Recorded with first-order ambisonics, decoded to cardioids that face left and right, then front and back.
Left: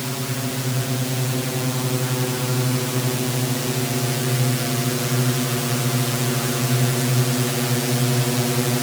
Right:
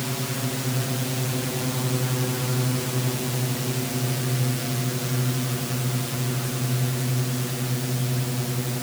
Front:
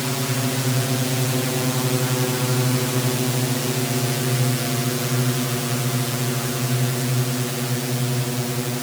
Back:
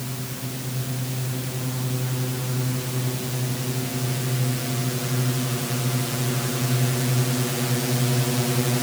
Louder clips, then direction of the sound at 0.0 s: Left 2 dB, front 10 dB; 10° left.